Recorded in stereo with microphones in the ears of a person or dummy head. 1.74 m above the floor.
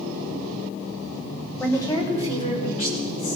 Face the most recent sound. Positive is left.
turn(degrees=55)  # may be behind; listen again after turning